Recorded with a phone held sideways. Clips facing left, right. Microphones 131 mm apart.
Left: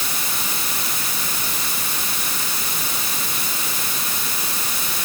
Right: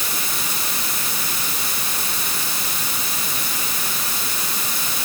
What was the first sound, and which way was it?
Only background noise.